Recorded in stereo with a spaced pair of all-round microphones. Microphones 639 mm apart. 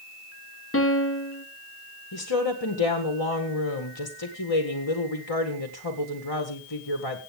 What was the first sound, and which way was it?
A piano, 20° left (ahead or behind).